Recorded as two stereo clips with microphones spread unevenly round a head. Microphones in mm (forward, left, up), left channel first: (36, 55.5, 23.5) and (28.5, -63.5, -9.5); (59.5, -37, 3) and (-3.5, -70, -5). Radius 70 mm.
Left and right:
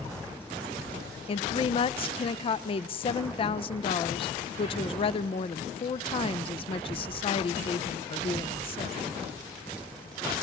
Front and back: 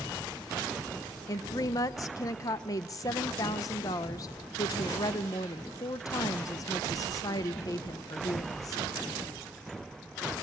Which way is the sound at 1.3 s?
45° left.